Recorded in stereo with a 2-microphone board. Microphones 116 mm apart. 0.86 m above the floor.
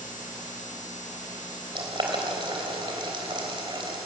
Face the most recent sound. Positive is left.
turn(degrees=-45)  # may be behind; listen again after turning